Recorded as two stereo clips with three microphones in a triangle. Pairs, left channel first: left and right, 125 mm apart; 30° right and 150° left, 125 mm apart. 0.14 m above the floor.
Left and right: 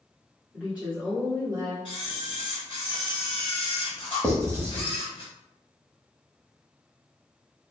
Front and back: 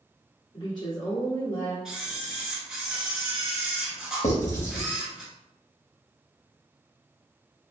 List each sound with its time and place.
0.5 s a woman speaking: 10° right, 1.6 m; by 1.8 s 50° right, 1.5 m
1.9 s a camera shutter: 70° left, 1.2 m
4.2 s writing: 20° right, 1.4 m